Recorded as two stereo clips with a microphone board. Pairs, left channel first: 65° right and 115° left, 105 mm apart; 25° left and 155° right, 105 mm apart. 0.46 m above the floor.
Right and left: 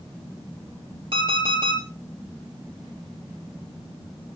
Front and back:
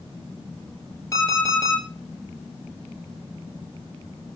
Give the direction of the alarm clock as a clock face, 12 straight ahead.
9 o'clock.